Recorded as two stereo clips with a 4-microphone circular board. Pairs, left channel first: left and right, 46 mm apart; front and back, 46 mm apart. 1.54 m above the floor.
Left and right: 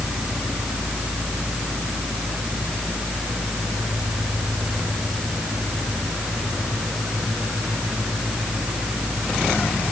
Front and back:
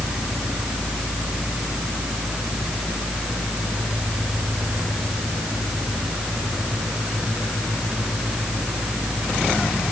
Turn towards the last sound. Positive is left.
No sound to turn to.